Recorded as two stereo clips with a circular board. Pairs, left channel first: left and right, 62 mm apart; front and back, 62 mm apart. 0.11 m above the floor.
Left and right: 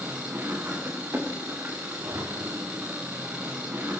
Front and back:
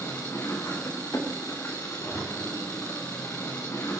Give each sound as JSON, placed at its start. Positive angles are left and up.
{"t": 0.0, "sound": "an engine running", "azimuth_deg": -35, "distance_m": 5.0}
{"t": 2.0, "sound": "a zipper", "azimuth_deg": -85, "distance_m": 6.5}